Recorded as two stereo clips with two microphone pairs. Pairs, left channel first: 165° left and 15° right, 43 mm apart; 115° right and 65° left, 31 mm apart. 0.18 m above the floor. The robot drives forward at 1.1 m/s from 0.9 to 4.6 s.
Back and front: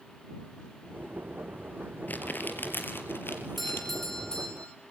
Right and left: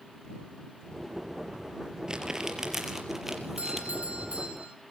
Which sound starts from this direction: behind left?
Crumpling, at 2.1 s.